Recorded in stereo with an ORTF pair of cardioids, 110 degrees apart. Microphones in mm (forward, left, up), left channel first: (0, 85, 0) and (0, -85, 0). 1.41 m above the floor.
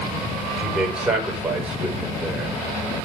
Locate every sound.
0.6 s a man speaking: 5° right, 4.5 m